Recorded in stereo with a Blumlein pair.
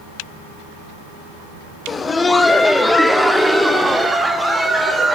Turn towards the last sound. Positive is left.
turn(degrees=-5)